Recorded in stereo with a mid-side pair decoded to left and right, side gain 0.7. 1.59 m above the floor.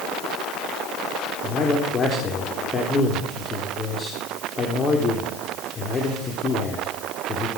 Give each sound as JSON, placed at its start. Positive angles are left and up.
{"t": 1.4, "sound": "a man speaking", "azimuth_deg": 25, "distance_m": 3.5}